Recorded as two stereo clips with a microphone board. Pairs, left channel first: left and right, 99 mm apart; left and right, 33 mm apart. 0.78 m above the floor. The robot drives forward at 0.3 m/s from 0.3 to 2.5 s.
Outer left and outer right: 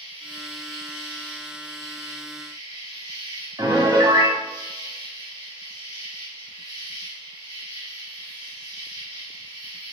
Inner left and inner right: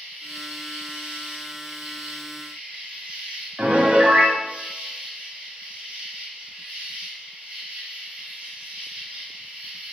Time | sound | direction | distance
0.0 | an insect | 60° right (ahead or behind) | 1.4 m
3.6 | a piano | 40° right (ahead or behind) | 0.6 m